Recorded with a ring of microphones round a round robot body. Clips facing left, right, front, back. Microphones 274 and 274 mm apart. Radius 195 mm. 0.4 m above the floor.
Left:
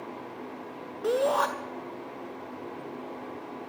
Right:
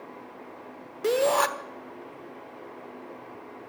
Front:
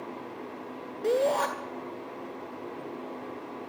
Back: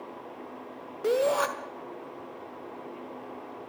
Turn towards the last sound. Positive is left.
turn(degrees=-105)